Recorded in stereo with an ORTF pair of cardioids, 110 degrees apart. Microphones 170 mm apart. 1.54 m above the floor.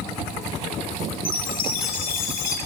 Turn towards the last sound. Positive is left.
turn(degrees=60)